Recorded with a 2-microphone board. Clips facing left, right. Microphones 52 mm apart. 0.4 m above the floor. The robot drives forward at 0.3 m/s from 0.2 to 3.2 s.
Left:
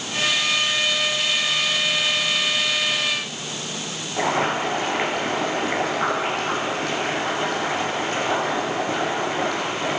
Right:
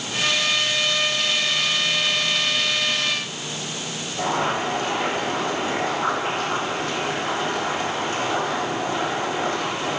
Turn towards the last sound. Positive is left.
turn(degrees=80)